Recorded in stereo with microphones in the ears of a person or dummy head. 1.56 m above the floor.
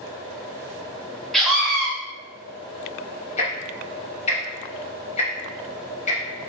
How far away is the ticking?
About 1.2 m.